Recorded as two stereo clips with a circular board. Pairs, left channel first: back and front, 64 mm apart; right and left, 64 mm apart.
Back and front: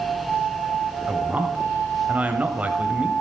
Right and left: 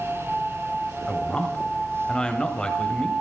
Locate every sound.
1.1 s a man speaking: 35° right, 1.1 m